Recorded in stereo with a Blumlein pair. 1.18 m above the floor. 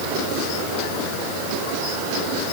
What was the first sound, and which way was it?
Only background noise.